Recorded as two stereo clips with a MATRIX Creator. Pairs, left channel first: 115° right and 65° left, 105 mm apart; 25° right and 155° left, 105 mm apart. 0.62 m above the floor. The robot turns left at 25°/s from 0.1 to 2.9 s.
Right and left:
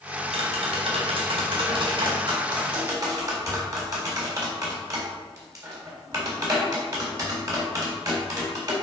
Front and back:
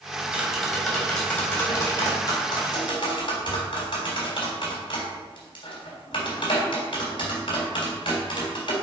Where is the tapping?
80° left, 3.5 m; by 8.7 s 15° left, 3.5 m.